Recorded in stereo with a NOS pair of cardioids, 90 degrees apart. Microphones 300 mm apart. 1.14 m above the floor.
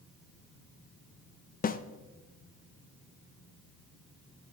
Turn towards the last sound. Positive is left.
turn(degrees=30)